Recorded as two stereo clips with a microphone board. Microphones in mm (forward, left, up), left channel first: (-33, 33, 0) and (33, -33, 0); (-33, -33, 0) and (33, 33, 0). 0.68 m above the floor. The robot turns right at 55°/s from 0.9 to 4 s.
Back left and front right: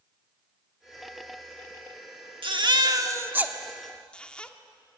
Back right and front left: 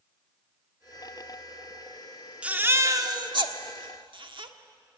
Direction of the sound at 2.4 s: 30° right.